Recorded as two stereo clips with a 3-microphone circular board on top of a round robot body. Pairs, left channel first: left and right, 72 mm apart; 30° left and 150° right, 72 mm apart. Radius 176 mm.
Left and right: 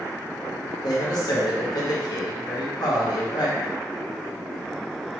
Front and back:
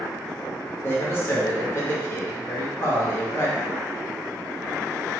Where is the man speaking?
85° left, 1.4 m.